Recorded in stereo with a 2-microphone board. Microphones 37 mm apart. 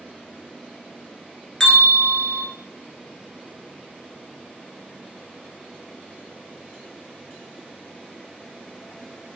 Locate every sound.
1.6 s a bell: 15° left (ahead or behind), 1.0 m